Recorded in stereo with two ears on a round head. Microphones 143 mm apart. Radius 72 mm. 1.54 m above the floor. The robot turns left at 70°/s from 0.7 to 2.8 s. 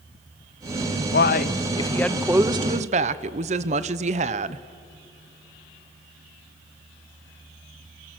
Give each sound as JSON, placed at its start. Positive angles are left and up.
{"t": 1.1, "sound": "a man speaking", "azimuth_deg": 70, "distance_m": 0.8}